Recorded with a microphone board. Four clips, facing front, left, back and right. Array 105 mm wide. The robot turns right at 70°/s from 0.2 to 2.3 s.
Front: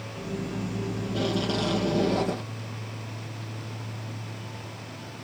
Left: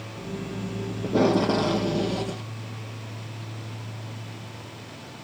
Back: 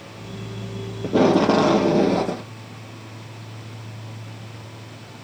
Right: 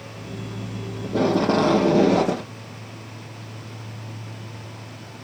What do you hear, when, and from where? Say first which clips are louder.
1.0 s tape being pulled: right 1 dB, back 14 dB; 165° left; by 2.5 s 105° right